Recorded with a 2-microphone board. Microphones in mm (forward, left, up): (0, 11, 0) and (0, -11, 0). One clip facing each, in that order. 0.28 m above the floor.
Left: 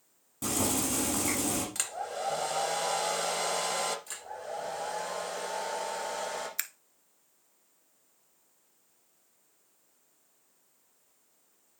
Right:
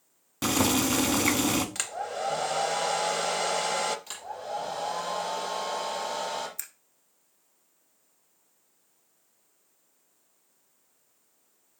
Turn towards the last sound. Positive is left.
turn(degrees=60)  # may be behind; listen again after turning